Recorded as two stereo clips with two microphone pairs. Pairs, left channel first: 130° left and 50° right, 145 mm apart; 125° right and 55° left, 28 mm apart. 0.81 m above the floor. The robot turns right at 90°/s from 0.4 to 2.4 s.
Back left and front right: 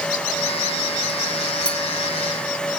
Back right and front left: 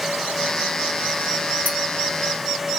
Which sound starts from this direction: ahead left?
A clink, at 1.6 s.